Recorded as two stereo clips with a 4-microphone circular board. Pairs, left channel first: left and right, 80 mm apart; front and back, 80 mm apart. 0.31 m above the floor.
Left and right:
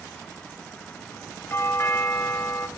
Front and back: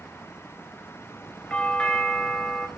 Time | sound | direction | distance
1.5 | a doorbell | 65° left | 1.8 m